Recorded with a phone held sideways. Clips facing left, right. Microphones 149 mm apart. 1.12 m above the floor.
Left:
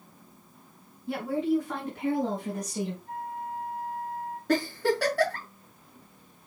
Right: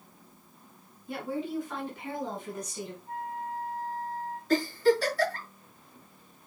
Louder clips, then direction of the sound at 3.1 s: Even; 85° left.